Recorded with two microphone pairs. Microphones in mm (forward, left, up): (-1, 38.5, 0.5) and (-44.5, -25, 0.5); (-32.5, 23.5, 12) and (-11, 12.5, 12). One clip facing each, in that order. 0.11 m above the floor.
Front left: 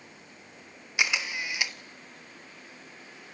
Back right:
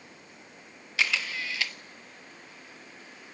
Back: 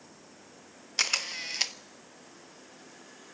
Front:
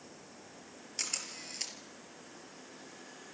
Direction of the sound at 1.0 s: 125° left.